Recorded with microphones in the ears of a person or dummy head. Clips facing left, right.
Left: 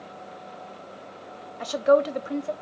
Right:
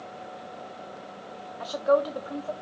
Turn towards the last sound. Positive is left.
turn(degrees=30)  # may be behind; listen again after turning